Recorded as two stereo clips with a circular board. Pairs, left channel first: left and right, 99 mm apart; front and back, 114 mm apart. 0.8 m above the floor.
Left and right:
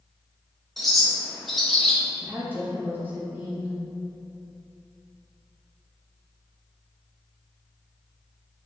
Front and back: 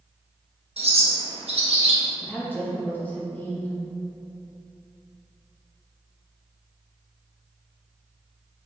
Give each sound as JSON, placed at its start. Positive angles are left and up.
{"t": 0.8, "sound": "a bird", "azimuth_deg": 180, "distance_m": 0.8}
{"t": 2.2, "sound": "a woman speaking", "azimuth_deg": -50, "distance_m": 0.9}